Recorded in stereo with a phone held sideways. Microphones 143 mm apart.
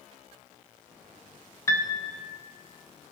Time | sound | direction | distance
1.7 | a piano | 20° left (ahead or behind) | 0.7 m